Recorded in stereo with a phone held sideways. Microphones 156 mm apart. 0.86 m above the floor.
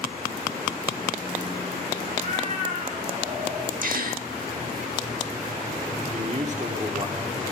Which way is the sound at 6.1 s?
50° right (ahead or behind).